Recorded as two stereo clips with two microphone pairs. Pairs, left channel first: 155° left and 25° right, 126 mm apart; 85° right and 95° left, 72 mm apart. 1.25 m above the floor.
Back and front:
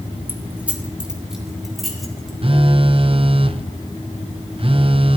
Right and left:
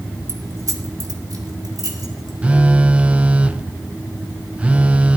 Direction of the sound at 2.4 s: 25° left.